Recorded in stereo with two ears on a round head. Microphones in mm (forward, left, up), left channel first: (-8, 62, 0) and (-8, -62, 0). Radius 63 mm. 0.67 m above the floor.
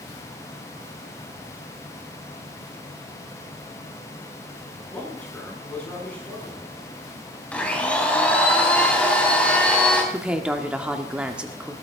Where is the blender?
10° left (ahead or behind), 3 m.